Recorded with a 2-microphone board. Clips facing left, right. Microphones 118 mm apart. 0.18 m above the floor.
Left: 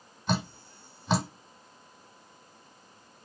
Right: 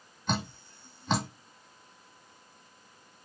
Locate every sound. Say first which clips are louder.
0.3 s dripping: left 2 dB; 5° left (ahead or behind), 1.8 m